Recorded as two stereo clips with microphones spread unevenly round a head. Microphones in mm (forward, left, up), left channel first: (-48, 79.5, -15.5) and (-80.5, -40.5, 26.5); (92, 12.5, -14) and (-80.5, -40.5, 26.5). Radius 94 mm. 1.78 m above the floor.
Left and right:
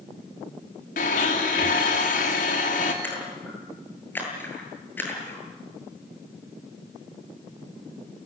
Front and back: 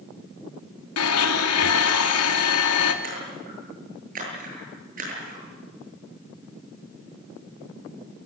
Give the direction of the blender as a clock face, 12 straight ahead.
11 o'clock.